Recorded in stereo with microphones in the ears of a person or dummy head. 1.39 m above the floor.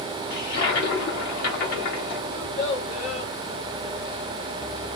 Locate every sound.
0.3 s a toilet flushing: 65° left (ahead or behind), 1.8 m
2.3 s a child speaking: 55° left (ahead or behind), 3.5 m